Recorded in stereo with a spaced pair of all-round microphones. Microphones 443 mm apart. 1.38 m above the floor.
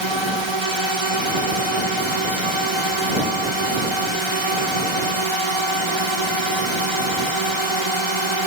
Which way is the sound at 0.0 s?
75° right (ahead or behind).